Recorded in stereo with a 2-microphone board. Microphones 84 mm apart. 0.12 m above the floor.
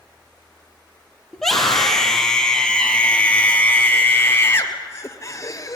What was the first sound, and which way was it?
A scream, 5° left (ahead or behind).